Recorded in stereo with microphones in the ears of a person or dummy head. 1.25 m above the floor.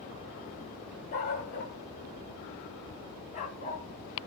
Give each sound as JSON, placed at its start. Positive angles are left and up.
{"t": 1.1, "sound": "a dog barking", "side_deg": 40, "distance_m": 1.4}